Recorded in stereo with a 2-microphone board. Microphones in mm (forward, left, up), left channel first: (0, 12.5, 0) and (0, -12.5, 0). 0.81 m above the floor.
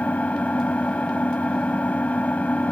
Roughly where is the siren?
I don't hear a siren.